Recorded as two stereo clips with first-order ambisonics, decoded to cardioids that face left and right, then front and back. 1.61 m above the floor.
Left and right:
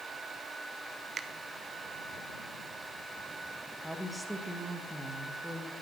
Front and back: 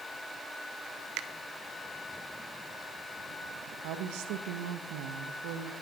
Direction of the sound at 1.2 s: 155° right.